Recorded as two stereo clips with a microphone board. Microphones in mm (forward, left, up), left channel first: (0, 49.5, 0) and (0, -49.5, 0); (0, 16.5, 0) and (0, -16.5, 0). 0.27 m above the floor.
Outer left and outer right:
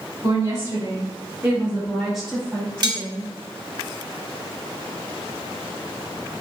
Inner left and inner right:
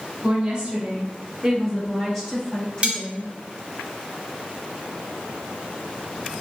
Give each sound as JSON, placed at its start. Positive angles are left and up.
{"t": 0.2, "sound": "a woman speaking", "side_deg": -35, "distance_m": 1.8}
{"t": 2.8, "sound": "cutlery clinking", "side_deg": -45, "distance_m": 0.7}